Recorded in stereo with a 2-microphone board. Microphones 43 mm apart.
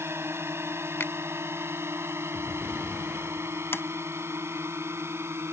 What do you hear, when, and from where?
0.0 s a drone: 75° right (ahead or behind); by 5.5 s 80° right
1.0 s a finger snap: 75° left (ahead or behind)
3.7 s a sliding door: 65° left (ahead or behind)